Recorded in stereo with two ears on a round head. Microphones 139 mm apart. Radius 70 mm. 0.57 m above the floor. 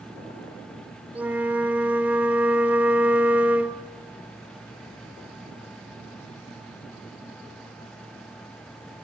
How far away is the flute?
About 1.5 m.